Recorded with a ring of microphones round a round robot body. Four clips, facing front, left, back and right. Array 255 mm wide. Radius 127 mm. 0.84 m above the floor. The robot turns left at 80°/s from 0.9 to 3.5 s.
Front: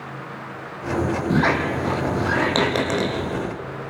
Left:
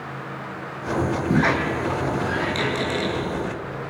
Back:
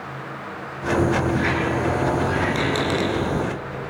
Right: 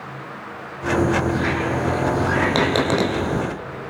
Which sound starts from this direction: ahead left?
A squeak, at 1.3 s.